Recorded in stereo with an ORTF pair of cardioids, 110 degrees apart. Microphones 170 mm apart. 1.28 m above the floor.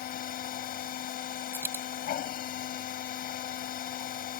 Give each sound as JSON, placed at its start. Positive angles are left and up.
{"t": 0.0, "sound": "a machine running", "azimuth_deg": 65}
{"t": 1.5, "sound": "a dropped coin", "azimuth_deg": -15}